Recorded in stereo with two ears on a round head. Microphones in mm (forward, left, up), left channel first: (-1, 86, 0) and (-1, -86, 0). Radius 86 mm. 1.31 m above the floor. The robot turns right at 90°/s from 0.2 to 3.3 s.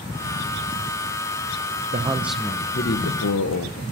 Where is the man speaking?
35° right, 0.8 m; by 3.8 s 90° left, 0.8 m.